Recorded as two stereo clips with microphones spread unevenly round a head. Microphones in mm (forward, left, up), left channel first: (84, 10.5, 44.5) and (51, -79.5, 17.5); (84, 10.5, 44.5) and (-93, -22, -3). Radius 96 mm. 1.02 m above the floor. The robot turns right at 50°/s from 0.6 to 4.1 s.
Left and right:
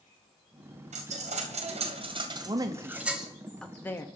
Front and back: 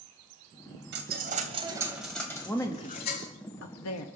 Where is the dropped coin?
135° right, 2.5 m; by 3.3 s 15° right, 2.5 m.